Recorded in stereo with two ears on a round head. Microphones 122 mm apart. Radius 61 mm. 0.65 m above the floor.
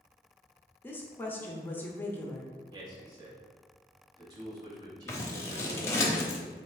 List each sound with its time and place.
0.8 s a woman speaking: 15° left (ahead or behind), 0.7 m
2.7 s a man speaking: 30° right (ahead or behind), 1.2 m
5.1 s scissors: 20° left (ahead or behind), 0.8 m